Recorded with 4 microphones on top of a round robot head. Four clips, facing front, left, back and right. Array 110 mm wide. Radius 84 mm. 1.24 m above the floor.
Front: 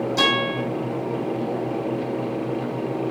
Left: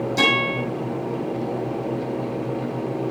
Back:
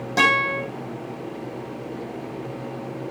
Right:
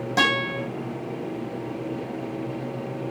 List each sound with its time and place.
0.2 s a guitar: 130° right, 8 m